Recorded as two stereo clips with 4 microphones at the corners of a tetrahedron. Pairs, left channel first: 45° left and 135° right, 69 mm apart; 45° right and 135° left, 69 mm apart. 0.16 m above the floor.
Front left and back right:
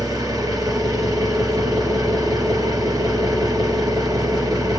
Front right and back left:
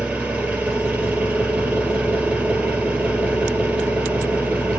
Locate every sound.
0.0 s an engine running: 160° right, 3 m